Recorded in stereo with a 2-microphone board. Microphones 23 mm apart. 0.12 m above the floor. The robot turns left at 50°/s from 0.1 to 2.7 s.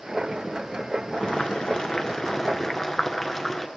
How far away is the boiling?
About 1.8 m.